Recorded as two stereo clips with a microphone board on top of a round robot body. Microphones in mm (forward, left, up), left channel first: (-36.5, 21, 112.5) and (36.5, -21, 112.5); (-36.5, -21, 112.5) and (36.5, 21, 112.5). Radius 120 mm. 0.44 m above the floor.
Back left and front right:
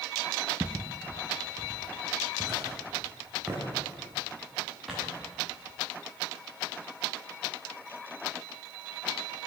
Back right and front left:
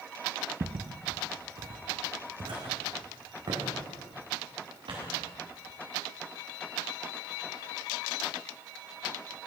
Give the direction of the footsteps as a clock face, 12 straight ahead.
11 o'clock.